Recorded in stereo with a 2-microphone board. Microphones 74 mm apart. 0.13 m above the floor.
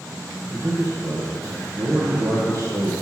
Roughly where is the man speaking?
Right.